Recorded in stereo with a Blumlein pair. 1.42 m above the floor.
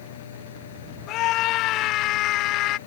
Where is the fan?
60° left.